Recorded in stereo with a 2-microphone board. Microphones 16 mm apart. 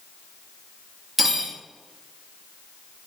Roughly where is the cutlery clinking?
Centre.